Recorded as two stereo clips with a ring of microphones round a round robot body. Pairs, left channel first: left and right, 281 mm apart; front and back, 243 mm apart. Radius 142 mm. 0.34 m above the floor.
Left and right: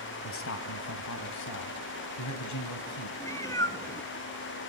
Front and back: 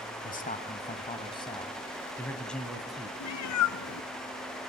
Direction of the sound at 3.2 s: 10° left.